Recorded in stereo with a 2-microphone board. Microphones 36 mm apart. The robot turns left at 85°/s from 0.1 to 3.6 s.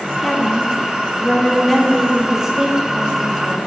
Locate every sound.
0.2 s a woman speaking: 15° left (ahead or behind), 1.0 m; by 3.6 s 10° right (ahead or behind), 1.0 m